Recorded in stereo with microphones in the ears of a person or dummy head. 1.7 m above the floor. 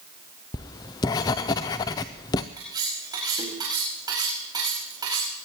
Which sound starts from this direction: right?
Cutlery clinking, at 2.6 s.